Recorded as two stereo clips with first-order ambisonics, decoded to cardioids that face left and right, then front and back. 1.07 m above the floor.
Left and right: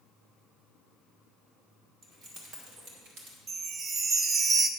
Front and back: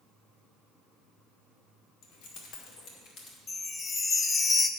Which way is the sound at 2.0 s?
30° right.